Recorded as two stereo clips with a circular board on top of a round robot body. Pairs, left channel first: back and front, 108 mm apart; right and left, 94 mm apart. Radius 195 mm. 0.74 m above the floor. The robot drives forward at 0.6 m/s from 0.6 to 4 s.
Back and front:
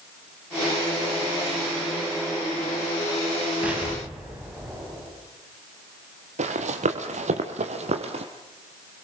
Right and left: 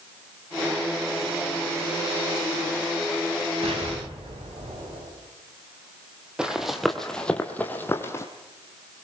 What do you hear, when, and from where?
3.6 s an explosion: 80° left, 8 m
6.4 s running footsteps: 10° left, 1.8 m; by 8.2 s 30° right, 2.0 m